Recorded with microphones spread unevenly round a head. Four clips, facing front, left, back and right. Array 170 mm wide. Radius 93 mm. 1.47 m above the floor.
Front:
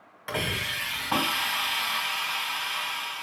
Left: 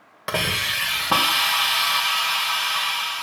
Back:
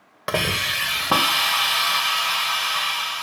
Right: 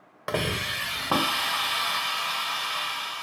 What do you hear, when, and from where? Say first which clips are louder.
0.3 s a hiss: left 2 dB, back 7 dB; 150° left, 2 m